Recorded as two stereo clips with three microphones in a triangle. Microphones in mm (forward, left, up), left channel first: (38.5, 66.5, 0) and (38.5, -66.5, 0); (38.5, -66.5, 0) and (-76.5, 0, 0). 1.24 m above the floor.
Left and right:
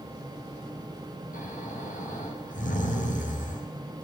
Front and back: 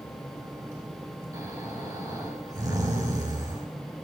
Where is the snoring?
85° left, 7 m.